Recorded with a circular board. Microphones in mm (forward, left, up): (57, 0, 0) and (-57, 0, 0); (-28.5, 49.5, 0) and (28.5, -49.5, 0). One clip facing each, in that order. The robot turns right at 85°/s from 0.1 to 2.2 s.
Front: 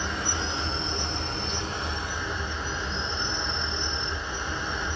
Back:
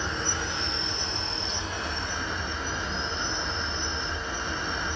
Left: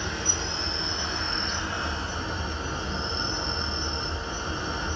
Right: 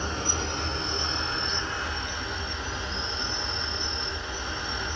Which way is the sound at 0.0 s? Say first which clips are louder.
Front 1 dB, right 1 dB; 90° right.